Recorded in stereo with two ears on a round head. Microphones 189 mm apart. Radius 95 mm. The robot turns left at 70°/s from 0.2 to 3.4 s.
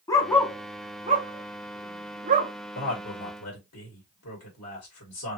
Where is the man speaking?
45° left (ahead or behind), 1.8 m; by 5.4 s 85° left, 1.8 m.